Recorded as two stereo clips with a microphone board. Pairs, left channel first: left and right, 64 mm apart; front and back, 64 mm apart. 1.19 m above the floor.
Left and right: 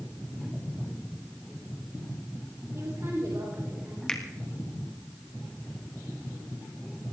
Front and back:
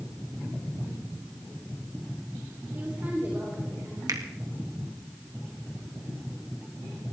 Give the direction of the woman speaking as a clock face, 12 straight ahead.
4 o'clock.